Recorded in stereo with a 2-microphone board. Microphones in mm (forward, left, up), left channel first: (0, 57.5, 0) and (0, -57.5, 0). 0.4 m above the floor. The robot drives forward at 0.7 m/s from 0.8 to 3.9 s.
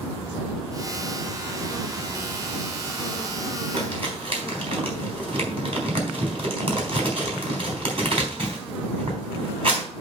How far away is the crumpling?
About 3.5 m.